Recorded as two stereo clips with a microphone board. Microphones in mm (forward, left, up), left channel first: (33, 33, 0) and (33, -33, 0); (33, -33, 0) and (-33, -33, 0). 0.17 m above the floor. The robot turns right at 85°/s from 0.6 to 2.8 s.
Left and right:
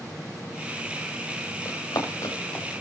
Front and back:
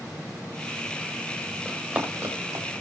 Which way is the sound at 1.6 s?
90° left.